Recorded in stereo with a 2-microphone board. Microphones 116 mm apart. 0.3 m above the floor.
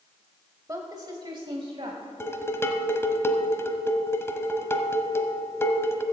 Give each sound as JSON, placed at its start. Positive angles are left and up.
{"t": 0.7, "sound": "a woman speaking", "side_deg": -30, "distance_m": 1.1}
{"t": 2.2, "sound": "dishes clattering", "side_deg": 20, "distance_m": 1.1}